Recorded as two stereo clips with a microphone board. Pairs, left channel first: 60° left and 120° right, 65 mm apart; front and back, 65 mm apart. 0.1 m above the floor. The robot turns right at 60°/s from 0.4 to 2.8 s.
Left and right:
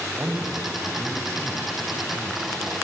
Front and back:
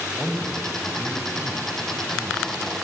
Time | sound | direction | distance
0.1 | a man speaking | 70° right | 4 m